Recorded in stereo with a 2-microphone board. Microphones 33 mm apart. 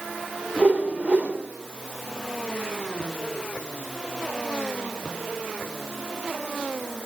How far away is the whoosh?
About 2.5 m.